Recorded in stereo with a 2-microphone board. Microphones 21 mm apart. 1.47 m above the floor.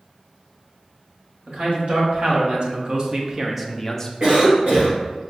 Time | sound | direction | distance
1.5 | a man speaking | 60° right (ahead or behind) | 1.6 m
4.2 | a cough | 70° right (ahead or behind) | 1.8 m